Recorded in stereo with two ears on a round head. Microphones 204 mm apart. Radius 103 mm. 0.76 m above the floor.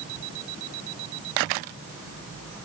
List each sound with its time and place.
Only background noise.